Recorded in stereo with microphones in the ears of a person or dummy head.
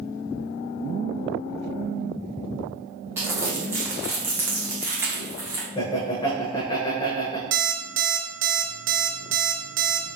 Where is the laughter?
20° left (ahead or behind), 0.5 m.